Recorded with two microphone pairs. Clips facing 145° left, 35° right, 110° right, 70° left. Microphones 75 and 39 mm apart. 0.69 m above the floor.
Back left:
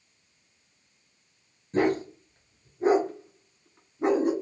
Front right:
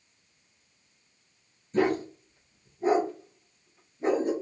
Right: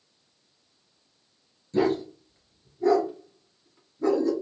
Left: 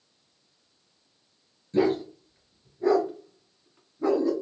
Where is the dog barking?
135° left, 2.5 m.